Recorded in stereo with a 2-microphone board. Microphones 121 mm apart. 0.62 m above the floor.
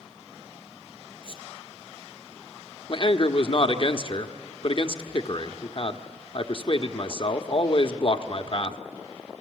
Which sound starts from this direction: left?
A man speaking, at 2.9 s.